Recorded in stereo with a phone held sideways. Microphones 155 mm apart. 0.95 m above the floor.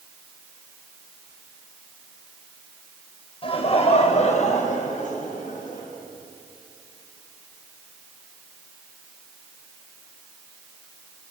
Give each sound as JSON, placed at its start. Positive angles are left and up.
{"t": 3.4, "sound": "laughter", "side_deg": 40, "distance_m": 5.0}